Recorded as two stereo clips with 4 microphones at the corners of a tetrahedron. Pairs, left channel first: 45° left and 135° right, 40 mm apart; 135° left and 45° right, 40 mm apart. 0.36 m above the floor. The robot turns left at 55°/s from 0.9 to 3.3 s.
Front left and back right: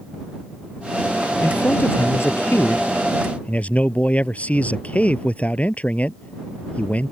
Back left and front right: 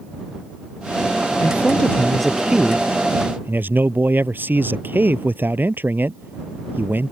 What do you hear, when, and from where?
1.4 s a man speaking: 95° left; by 7.1 s 10° right